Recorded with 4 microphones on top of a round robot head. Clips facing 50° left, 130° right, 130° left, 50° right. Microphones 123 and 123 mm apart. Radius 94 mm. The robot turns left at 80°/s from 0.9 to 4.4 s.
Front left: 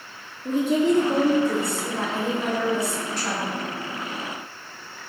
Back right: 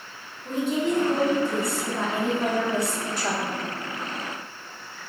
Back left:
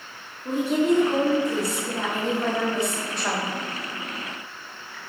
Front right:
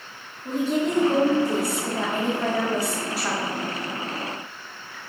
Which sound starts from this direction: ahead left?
A woman speaking, at 0.5 s.